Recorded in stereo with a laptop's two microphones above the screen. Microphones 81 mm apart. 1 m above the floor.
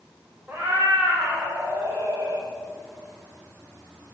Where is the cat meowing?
20° right (ahead or behind), 5 m; by 2.5 s 35° right (ahead or behind), 6 m.